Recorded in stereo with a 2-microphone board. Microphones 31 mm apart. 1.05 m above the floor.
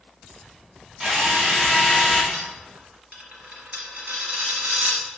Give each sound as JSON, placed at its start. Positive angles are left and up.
{"t": 1.0, "sound": "a drill", "side_deg": -20, "distance_m": 1.7}
{"t": 2.3, "sound": "a dropped coin", "side_deg": -50, "distance_m": 1.5}